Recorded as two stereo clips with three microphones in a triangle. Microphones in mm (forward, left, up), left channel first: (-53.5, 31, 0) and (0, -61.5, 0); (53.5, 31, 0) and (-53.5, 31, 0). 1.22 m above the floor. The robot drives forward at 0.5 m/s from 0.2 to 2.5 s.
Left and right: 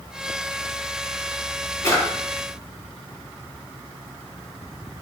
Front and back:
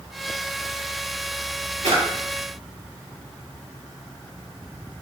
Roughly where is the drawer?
Behind.